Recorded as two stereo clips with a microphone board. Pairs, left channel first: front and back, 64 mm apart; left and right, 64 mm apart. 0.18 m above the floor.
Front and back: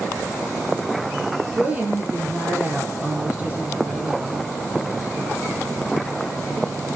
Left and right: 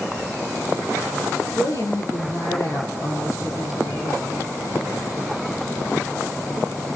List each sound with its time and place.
1.6 s a woman speaking: 110° left, 4.5 m